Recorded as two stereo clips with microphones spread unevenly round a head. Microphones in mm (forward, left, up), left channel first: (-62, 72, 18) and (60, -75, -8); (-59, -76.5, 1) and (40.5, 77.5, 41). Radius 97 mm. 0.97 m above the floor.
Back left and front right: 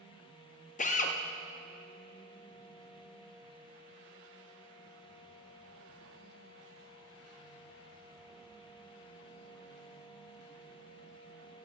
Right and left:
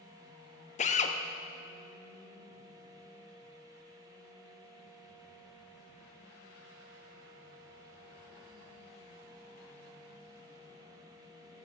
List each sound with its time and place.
0.8 s a drill: 175° right, 0.8 m